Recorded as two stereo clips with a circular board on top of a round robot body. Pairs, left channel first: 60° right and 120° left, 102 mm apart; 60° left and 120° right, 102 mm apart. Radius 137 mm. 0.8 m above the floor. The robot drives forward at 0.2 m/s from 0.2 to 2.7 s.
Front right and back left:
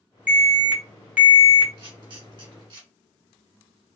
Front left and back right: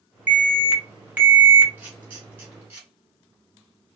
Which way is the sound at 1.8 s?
165° left.